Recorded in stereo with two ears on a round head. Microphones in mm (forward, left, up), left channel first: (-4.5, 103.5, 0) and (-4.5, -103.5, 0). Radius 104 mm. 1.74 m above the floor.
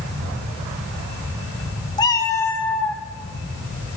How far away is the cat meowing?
About 1.6 m.